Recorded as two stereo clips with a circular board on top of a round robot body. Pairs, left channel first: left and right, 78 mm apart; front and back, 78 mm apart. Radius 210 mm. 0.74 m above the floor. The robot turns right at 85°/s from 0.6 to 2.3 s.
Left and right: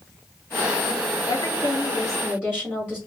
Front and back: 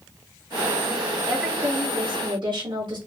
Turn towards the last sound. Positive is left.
turn(degrees=-170)